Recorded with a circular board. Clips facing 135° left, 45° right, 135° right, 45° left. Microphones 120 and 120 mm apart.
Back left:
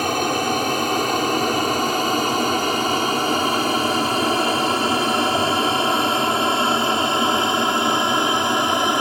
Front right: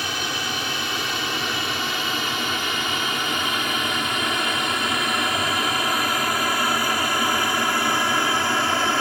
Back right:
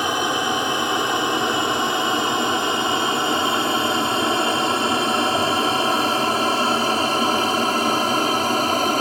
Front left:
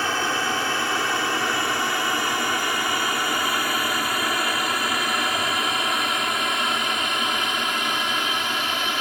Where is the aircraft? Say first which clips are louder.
Back left 9 dB, back right 3 dB; 155° left; by 9.0 s 160° right.